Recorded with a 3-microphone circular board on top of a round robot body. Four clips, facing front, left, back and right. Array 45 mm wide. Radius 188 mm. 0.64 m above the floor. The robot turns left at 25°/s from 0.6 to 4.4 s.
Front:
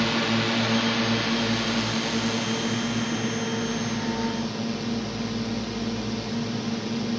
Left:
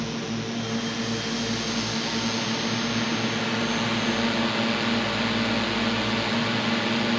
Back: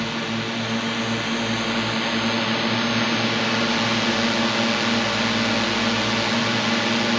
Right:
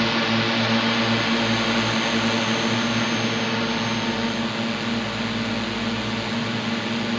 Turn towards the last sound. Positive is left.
turn(degrees=175)